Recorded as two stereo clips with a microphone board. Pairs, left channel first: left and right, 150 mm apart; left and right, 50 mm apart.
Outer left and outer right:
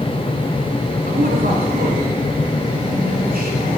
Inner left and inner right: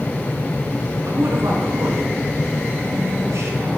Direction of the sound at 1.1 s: 75° right (ahead or behind).